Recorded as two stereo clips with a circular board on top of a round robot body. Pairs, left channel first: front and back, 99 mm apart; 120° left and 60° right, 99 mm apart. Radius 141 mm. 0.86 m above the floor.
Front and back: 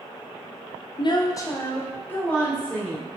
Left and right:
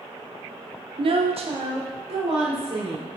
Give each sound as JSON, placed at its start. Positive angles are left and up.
{"t": 1.0, "sound": "a woman speaking", "azimuth_deg": -35, "distance_m": 0.5}